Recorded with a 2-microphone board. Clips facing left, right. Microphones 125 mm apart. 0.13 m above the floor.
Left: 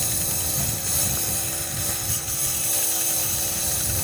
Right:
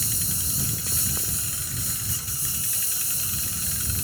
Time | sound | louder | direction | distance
0.0 | a lawn mower | left 4 dB | 70° left (ahead or behind) | ?